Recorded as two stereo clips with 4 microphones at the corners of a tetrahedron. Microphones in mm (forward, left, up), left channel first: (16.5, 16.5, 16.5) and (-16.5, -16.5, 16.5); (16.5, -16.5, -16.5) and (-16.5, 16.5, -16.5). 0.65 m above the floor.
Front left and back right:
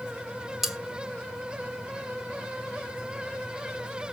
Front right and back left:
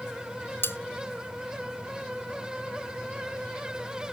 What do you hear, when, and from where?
0.6 s cutlery clinking: 55° right, 0.6 m